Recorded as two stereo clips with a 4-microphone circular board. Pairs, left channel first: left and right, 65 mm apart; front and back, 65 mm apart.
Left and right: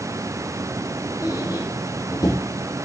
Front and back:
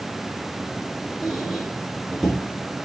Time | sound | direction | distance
1.2 | a squeak | 85° left | 3 m